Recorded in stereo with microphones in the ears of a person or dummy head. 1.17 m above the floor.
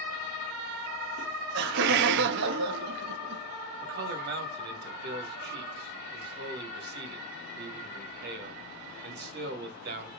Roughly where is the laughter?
Right.